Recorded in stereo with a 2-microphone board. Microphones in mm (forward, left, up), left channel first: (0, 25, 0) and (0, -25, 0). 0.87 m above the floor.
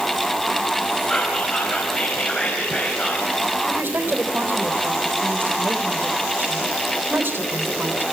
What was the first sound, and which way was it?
Whispering, 25° left (ahead or behind).